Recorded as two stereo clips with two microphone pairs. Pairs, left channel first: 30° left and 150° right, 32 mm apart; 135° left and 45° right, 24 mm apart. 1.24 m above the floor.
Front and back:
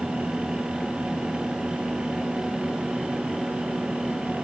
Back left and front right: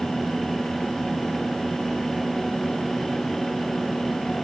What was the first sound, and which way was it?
Only background noise.